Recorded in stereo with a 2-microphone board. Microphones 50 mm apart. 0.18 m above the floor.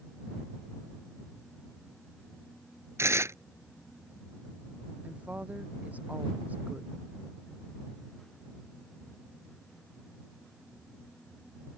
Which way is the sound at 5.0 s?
35° right (ahead or behind).